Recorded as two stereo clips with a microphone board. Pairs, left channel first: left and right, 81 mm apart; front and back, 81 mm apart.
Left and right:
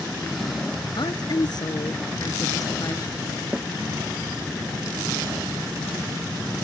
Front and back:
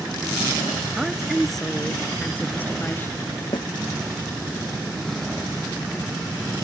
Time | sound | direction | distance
1.0 | a woman speaking | 95° left | ?
3.5 | a snare drum | 15° right | ?